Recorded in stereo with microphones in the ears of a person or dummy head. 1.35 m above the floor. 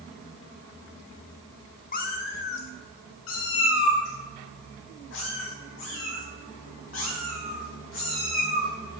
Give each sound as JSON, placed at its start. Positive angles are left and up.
{"t": 1.9, "sound": "a cat meowing", "side_deg": 40, "distance_m": 1.1}